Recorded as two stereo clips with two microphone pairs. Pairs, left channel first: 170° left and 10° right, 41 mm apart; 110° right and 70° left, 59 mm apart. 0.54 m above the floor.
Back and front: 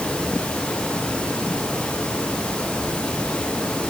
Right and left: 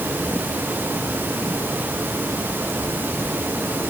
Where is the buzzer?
No buzzer in this recording.